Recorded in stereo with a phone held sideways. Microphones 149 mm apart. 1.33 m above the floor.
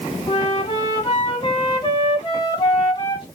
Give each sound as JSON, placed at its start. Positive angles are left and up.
{"t": 0.3, "sound": "a flute", "side_deg": 30, "distance_m": 0.8}